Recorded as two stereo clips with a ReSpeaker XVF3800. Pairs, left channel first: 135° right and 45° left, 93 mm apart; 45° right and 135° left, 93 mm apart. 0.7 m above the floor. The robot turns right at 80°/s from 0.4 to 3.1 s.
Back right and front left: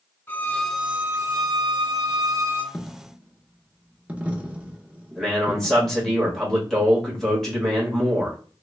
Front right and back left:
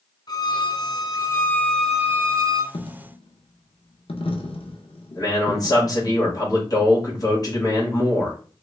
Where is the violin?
70° right, 0.5 m; by 2.6 s 105° left, 0.5 m.